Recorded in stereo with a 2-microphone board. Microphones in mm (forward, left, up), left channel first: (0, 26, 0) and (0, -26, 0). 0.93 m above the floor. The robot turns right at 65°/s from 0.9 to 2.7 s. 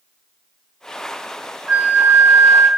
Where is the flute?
145° right, 0.5 m; by 2.7 s 80° right, 0.5 m.